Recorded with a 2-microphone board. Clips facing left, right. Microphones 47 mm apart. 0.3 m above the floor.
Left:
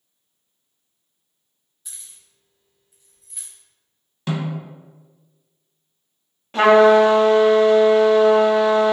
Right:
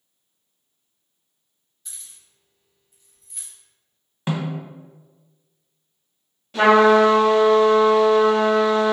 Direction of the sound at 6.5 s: 40° left (ahead or behind).